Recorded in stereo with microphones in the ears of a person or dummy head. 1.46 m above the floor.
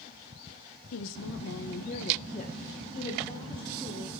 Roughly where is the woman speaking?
Left.